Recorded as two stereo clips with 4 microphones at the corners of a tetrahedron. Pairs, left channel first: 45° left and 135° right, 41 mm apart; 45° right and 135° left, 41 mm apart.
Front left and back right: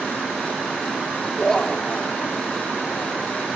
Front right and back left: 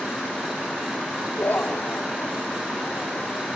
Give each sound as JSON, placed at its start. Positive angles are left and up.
{"t": 1.4, "sound": "laughter", "azimuth_deg": -40}